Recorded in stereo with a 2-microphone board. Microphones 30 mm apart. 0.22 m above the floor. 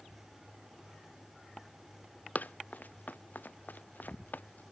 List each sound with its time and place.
2.4 s running footsteps: 65° left (ahead or behind); by 4.6 s 85° left